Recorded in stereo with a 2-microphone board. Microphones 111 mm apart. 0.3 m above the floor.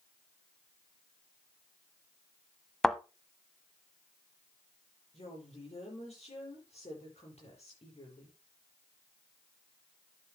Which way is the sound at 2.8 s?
5° left (ahead or behind).